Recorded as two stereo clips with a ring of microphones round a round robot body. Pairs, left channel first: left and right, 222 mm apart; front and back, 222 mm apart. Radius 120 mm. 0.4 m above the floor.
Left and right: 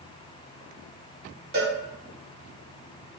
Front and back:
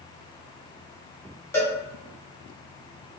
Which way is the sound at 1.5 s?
75° right.